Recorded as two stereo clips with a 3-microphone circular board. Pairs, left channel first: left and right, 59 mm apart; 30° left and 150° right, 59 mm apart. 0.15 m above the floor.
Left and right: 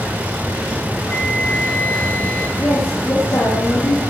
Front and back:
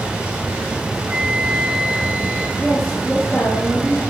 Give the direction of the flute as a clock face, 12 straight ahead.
7 o'clock.